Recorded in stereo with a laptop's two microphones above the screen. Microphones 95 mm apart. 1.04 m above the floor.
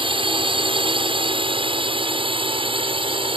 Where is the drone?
65° right (ahead or behind).